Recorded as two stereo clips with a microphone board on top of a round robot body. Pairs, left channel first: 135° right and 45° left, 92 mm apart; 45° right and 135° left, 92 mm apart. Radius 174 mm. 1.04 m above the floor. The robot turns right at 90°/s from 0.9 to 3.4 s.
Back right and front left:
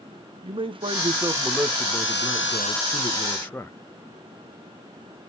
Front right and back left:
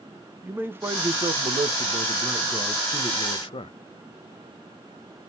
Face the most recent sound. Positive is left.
turn(degrees=-65)